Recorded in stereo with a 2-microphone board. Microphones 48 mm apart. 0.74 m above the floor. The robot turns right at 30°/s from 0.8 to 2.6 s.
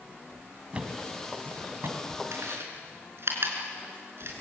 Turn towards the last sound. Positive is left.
turn(degrees=-55)  # may be behind; listen again after turning